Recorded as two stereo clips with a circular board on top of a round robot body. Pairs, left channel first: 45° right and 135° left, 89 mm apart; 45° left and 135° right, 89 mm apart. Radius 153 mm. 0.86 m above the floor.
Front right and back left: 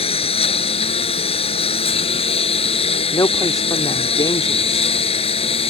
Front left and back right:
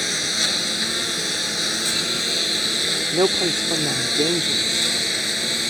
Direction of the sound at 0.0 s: 45° right.